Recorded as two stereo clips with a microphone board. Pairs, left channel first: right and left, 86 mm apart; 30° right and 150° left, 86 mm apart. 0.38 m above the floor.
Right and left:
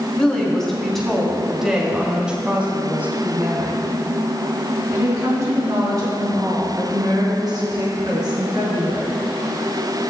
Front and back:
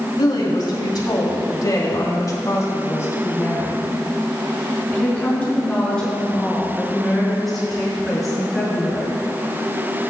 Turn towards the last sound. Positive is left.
turn(degrees=65)